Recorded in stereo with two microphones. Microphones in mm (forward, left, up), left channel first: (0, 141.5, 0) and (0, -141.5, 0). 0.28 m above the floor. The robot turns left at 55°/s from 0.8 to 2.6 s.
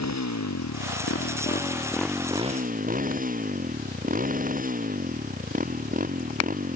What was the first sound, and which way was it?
A motorcycle, 70° left.